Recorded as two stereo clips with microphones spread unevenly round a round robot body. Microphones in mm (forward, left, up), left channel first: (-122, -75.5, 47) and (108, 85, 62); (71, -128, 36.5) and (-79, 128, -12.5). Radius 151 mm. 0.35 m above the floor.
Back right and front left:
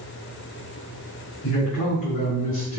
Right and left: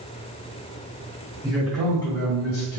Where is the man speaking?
165° right, 2 m; by 2.8 s 115° right, 2 m.